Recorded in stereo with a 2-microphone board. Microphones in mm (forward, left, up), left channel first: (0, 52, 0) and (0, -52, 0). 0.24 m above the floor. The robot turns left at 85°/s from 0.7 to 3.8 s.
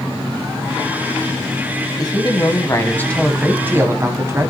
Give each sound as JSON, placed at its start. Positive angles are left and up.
{"t": 2.0, "sound": "a man speaking", "azimuth_deg": 115, "distance_m": 1.8}